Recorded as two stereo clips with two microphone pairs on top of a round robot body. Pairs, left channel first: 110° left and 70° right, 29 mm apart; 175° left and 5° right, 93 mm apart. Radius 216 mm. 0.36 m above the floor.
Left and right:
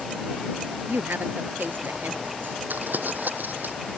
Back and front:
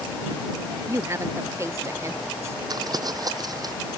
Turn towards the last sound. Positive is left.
turn(degrees=-50)